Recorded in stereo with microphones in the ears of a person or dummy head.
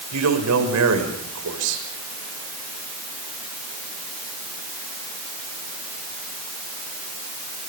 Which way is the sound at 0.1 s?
90° right.